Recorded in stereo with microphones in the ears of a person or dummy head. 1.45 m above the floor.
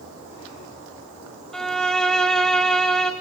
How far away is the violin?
About 1.5 m.